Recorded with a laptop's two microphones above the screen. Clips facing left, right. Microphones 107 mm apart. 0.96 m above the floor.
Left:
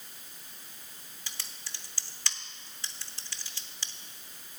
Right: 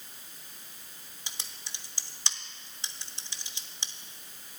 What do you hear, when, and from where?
1.3 s typing on a keyboard: 20° right (ahead or behind), 0.8 m